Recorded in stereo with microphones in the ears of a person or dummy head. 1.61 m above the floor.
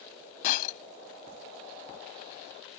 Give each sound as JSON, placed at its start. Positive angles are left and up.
{"t": 0.4, "sound": "breaking glass", "side_deg": 50}